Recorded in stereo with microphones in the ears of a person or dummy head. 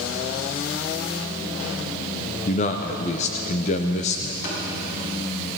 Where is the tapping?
65° left (ahead or behind), 7 m.